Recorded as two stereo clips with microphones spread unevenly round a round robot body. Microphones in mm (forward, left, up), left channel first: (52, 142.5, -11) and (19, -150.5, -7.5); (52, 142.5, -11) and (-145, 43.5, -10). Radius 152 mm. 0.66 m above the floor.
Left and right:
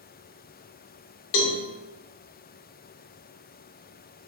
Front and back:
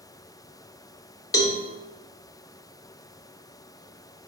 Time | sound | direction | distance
1.3 | a cowbell | 105° left | 0.6 m